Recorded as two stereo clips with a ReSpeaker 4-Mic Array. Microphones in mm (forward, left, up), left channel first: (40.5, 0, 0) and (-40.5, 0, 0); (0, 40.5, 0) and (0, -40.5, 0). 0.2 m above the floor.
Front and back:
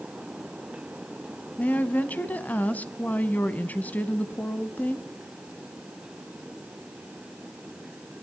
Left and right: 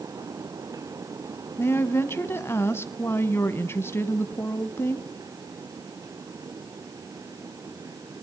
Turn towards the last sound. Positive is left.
turn(degrees=55)